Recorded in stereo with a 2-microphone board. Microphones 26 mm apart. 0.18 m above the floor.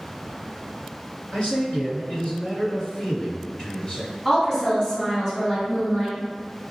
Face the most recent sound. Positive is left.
turn(degrees=15)  # may be behind; listen again after turning